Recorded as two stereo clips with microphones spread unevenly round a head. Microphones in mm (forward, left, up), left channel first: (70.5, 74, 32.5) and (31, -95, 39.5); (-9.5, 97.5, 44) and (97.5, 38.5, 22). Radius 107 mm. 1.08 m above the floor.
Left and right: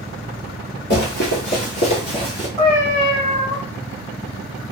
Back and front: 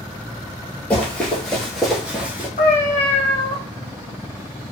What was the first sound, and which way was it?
Running footsteps, 90° left.